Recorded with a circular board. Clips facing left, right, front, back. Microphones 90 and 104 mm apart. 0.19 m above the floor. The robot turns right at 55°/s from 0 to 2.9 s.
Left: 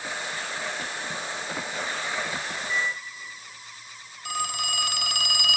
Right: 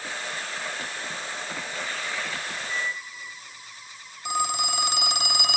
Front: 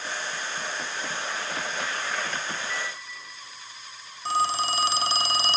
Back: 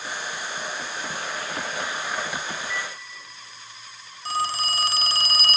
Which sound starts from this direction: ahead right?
A phone ringing, at 4.2 s.